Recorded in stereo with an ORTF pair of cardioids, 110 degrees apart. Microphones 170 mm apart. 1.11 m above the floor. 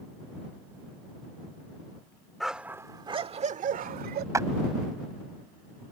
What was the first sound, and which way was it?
A dog barking, straight ahead.